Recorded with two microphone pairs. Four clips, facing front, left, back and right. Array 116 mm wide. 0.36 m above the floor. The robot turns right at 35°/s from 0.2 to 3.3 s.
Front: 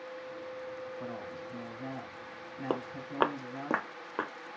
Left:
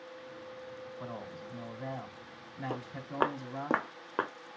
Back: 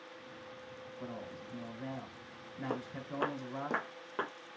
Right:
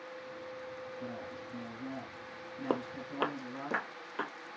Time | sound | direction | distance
1.0 | a man speaking | 55° left | 2.5 m
2.7 | footsteps | 40° right | 0.5 m